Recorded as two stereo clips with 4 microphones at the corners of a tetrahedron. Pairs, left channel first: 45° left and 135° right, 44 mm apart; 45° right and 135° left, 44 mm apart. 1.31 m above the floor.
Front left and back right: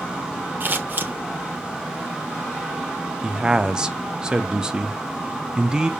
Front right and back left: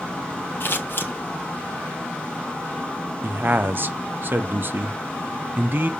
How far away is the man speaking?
About 0.6 m.